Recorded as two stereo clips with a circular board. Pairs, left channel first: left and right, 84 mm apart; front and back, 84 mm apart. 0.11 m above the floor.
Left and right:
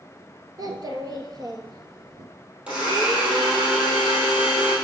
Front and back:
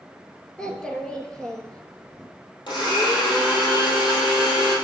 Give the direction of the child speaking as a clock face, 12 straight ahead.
3 o'clock.